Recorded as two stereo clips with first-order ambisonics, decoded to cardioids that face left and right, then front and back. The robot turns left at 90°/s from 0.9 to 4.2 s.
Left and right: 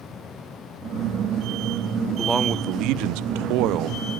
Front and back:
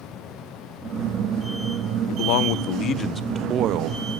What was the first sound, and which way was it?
A man speaking, 15° left.